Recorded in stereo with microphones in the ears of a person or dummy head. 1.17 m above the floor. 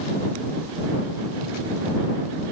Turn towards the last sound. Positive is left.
No sound to turn to.